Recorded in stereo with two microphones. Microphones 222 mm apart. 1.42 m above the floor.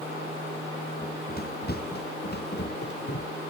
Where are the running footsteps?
45° left (ahead or behind); by 3.3 s 50° left (ahead or behind).